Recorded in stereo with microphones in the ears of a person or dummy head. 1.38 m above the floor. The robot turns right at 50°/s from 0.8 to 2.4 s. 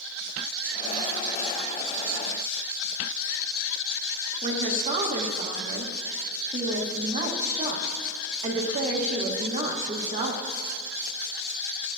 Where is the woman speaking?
40° right (ahead or behind), 1.1 m.